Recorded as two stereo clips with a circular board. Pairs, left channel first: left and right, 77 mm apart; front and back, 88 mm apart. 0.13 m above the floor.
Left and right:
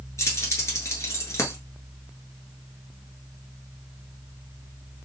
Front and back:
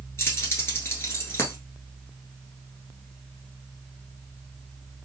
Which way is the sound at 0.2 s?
50° left.